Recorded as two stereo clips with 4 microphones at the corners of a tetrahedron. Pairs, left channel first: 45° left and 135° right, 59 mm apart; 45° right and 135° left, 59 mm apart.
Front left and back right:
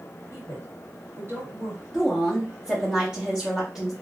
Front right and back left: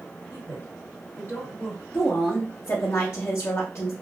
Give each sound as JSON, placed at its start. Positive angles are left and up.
{"t": 0.3, "sound": "a woman speaking", "azimuth_deg": -90, "distance_m": 2.0}
{"t": 1.9, "sound": "a woman speaking", "azimuth_deg": -60, "distance_m": 0.9}